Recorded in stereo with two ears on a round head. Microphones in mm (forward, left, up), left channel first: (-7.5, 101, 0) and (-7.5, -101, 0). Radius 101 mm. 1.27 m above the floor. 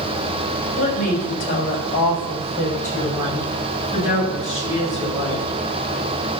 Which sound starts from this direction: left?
A woman speaking, at 0.8 s.